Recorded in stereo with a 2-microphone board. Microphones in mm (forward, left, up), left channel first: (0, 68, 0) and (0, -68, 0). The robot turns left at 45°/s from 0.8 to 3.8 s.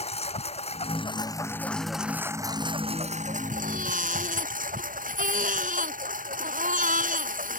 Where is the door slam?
No door slam in this recording.